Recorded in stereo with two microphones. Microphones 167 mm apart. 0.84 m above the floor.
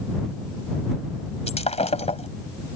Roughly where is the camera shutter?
I don't hear a camera shutter.